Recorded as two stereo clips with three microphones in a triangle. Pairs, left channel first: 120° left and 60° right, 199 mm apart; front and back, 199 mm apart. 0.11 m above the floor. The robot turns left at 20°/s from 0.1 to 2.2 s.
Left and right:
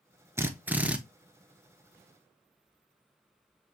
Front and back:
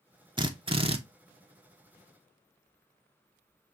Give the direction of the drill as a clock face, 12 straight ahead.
4 o'clock.